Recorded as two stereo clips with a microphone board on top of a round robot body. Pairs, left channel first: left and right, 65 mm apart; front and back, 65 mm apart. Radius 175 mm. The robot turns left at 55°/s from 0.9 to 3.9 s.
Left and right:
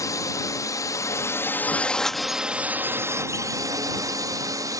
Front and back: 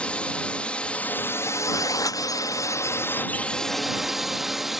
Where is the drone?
70° left; by 4.8 s 95° right.